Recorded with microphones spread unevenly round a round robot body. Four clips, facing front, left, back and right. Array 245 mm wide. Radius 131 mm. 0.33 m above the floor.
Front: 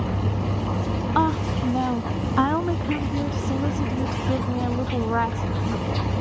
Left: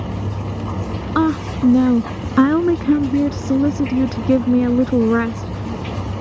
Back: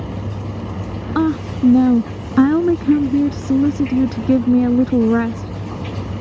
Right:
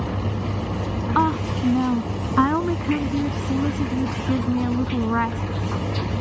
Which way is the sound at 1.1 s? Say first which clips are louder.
Left 4 dB, back 6 dB; 155° left.